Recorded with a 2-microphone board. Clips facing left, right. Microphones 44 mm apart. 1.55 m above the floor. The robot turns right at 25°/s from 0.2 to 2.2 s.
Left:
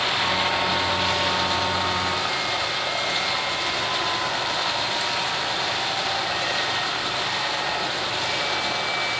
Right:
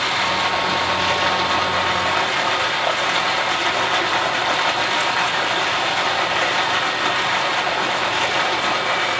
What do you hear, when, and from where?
0.0 s running water: 120° right, 9.5 m; by 9.2 s 70° right, 9.5 m